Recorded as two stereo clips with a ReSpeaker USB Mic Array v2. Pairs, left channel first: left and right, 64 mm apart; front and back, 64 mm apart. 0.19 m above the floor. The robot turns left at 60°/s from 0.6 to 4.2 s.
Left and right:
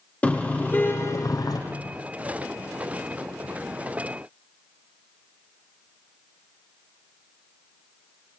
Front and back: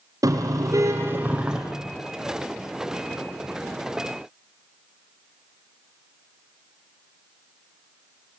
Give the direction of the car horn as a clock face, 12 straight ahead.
7 o'clock.